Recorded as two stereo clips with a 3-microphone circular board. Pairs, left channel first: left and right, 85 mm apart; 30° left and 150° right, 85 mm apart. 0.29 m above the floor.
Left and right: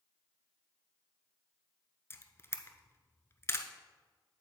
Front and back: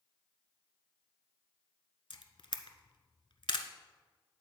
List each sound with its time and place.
2.1 s a camera shutter: 30° left, 0.7 m